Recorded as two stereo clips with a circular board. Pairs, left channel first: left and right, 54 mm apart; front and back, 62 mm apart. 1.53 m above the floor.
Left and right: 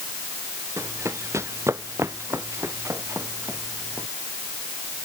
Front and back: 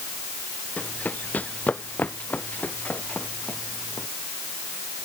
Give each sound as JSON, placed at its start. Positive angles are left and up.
{"t": 0.8, "sound": "running footsteps", "azimuth_deg": -60}